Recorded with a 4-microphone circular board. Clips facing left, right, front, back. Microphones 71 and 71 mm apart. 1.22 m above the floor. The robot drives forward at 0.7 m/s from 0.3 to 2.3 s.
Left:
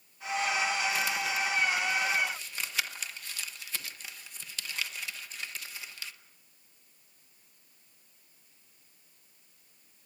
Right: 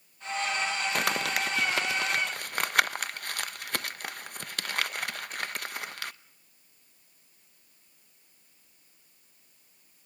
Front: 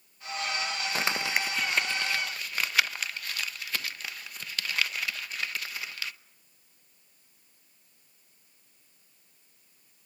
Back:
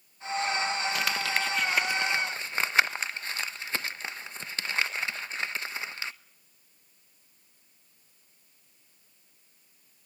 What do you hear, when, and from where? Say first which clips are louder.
0.9 s crumpling: right 2 dB, even; 55° right, 0.9 m; by 6.1 s 120° right, 0.9 m